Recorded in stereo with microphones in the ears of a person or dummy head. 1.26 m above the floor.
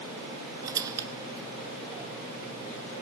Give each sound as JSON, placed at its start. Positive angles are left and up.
{"t": 0.6, "sound": "a squeak", "side_deg": -20, "distance_m": 1.0}